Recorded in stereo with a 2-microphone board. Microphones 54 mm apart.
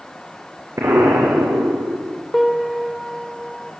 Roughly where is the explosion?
Right.